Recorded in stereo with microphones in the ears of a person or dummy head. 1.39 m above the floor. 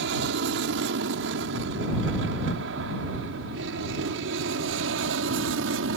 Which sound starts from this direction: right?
An aircraft, at 0.0 s.